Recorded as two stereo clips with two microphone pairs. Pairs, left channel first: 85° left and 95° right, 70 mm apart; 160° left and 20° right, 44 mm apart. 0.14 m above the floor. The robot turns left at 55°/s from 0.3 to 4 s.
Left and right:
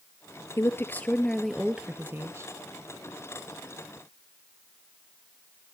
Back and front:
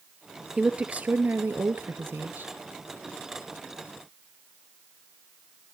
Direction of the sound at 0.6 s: 45° left.